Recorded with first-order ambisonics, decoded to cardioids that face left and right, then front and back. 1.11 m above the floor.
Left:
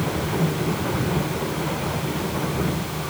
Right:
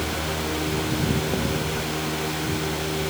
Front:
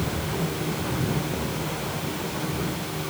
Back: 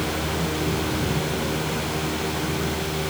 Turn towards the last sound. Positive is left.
No sound to turn to.